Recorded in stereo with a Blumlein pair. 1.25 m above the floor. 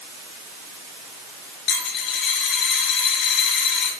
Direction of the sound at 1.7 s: 35° left.